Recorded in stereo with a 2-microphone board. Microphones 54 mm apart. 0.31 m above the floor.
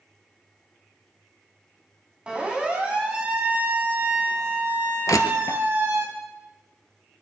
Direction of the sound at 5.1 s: 85° left.